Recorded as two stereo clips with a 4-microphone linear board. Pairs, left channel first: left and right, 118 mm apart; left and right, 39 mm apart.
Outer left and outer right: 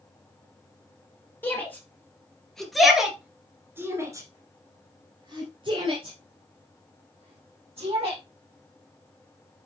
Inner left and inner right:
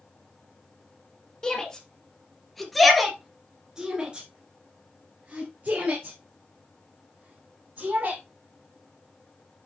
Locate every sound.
1.4 s a shout: 20° left (ahead or behind), 2.5 m; by 8.2 s 50° right (ahead or behind), 4 m